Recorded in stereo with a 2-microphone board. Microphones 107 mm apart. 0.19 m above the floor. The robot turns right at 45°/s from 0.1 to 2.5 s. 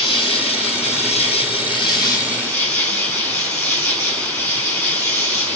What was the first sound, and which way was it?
An insect, 55° left.